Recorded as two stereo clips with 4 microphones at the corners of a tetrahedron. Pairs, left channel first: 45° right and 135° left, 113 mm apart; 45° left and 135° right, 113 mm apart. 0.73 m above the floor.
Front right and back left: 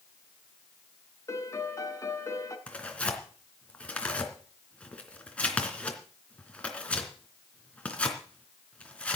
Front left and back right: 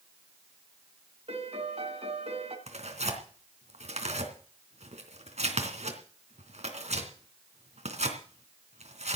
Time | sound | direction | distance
1.3 | a piano | 110° right | 2 m
2.7 | tearing paper | 125° right | 3 m